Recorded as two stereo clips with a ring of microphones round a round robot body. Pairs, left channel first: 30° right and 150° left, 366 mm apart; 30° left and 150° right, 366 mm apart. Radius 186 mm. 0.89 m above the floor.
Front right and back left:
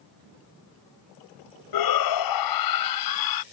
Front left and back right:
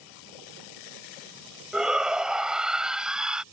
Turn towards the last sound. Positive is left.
turn(degrees=-60)